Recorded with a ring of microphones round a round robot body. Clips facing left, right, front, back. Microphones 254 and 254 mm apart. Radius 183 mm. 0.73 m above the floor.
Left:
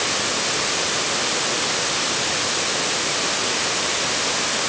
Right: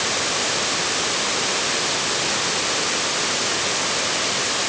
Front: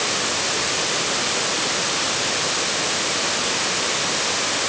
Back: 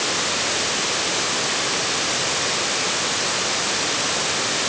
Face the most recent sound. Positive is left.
No sound to turn to.